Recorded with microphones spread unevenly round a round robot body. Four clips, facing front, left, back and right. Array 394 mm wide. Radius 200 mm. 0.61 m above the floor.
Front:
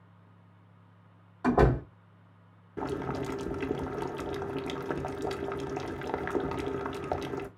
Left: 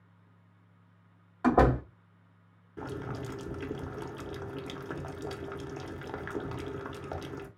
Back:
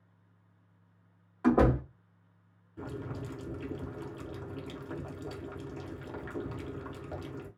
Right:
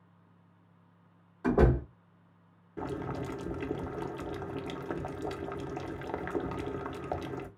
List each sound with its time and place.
1.4 s a door slam: 75° left, 2 m
2.8 s boiling: 15° left, 1.1 m